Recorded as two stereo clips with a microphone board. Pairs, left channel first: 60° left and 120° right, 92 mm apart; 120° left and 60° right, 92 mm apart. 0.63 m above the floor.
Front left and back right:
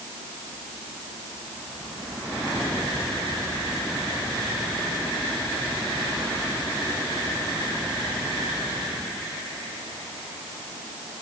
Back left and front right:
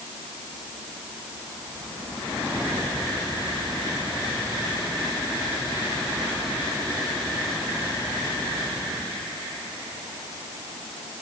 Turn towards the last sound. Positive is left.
No sound to turn to.